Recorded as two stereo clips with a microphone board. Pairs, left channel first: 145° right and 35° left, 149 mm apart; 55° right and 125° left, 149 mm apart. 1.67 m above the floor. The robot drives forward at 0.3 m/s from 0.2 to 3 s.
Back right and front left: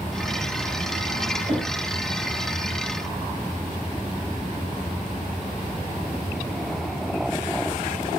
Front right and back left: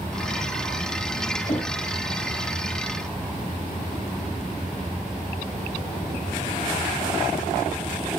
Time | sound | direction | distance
1.5 | knocking | 30° right | 5 m